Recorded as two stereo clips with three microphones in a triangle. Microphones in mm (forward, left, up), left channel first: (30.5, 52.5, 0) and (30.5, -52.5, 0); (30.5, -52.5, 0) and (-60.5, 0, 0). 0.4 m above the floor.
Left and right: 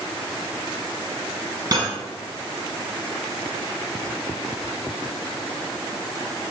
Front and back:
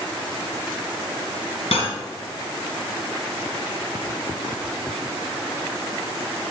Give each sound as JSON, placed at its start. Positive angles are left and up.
{"t": 1.7, "sound": "cutlery clinking", "azimuth_deg": -40, "distance_m": 2.0}